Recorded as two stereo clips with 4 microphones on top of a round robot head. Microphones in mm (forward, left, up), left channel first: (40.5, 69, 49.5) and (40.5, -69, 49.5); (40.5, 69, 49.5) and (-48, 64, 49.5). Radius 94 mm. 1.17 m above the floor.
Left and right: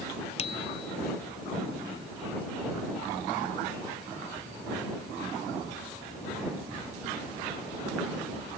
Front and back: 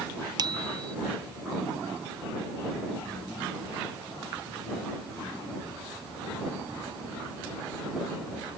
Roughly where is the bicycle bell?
Behind left.